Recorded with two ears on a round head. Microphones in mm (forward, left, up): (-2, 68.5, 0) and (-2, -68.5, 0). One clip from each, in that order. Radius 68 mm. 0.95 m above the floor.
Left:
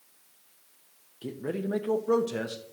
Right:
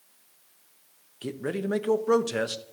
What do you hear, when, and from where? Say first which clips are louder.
1.2 s a man speaking: right 2 dB; 45° right (ahead or behind), 0.6 m